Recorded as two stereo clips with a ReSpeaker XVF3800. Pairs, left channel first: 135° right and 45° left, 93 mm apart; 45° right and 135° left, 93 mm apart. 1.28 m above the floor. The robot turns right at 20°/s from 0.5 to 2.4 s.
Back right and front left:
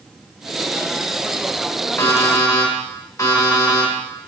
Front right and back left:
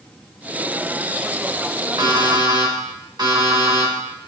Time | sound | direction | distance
2.0 | an alarm clock | 165° left | 2 m